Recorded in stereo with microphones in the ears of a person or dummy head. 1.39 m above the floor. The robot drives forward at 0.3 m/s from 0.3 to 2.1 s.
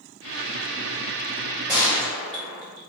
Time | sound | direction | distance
1.7 | a gunshot | 5° right (ahead or behind) | 1.6 m